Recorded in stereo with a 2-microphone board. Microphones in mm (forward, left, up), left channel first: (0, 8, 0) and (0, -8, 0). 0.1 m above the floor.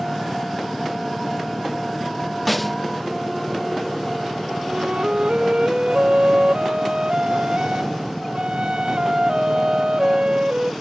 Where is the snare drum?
Centre (ahead or behind).